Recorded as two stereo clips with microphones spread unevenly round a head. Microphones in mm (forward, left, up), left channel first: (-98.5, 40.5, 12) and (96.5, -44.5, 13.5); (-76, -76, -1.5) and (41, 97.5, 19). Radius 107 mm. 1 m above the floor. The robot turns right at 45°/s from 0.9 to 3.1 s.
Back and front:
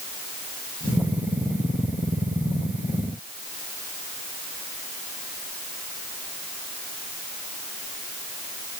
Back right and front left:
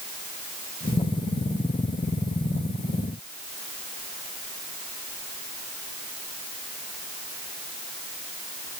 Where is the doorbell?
I don't hear a doorbell.